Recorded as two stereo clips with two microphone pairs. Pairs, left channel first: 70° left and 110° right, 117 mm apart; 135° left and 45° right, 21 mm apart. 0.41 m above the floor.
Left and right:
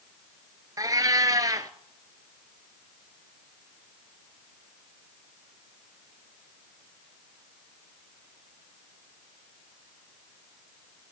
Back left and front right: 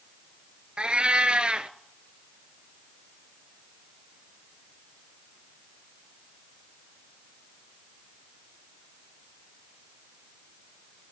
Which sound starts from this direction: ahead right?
A cat meowing, at 0.8 s.